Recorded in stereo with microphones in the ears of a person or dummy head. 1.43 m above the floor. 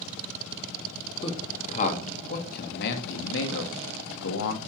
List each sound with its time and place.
1.2 s a man speaking: 35° left (ahead or behind), 2.5 m; by 4.6 s 85° left, 2 m